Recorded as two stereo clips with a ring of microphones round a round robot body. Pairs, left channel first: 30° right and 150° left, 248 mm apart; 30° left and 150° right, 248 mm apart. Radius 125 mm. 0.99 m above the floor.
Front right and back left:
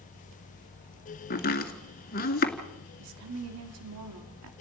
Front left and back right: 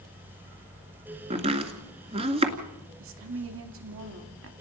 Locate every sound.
1.3 s chopping: 85° right, 2 m
3.0 s a woman speaking: 175° left, 2.5 m